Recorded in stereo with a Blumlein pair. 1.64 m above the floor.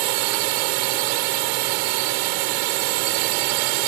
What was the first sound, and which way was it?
A drone, 45° right.